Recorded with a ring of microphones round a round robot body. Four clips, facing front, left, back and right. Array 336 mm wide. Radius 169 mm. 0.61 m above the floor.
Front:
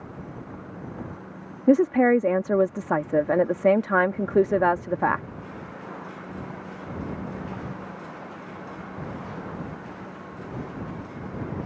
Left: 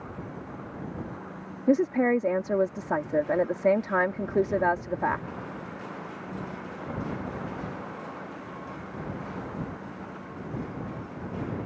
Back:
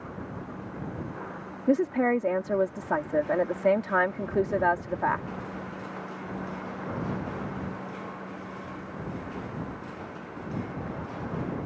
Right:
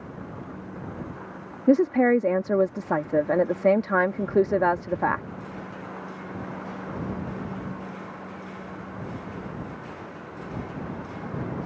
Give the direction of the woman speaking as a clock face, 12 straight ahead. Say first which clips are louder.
Right 4 dB, front 6 dB; 1 o'clock.